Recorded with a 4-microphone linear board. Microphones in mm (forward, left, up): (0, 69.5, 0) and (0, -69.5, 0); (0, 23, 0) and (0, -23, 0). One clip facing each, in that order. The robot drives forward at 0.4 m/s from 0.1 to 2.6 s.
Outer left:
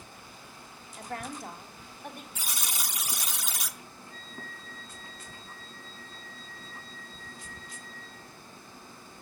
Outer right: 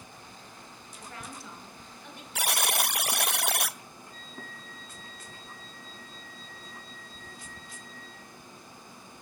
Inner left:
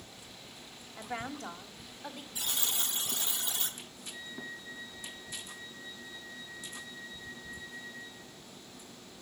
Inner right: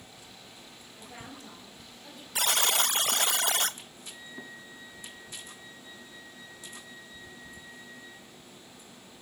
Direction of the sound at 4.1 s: 35° right (ahead or behind).